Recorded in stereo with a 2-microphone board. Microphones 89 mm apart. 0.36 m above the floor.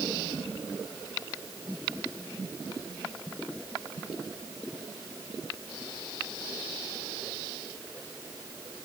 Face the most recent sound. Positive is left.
No sound to turn to.